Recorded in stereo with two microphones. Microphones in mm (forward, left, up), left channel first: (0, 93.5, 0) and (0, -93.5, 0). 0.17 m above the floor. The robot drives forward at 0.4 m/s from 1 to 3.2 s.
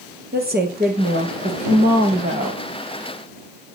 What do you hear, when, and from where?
0.3 s a woman speaking: 55° right (ahead or behind), 4 m; by 2.6 s 50° right (ahead or behind), 4 m